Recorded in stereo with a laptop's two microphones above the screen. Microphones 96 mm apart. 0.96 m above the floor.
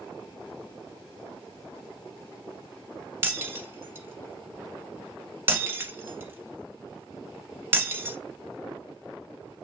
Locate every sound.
3.2 s breaking glass: 25° right (ahead or behind), 1.0 m